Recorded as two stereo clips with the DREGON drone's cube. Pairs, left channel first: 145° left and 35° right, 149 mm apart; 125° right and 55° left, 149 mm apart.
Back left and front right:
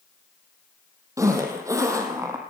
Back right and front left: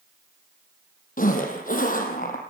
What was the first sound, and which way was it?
A zipper, 105° right.